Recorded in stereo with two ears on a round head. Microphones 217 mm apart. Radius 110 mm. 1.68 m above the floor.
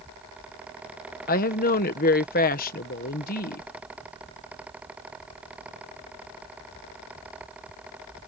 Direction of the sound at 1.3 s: 35° left (ahead or behind).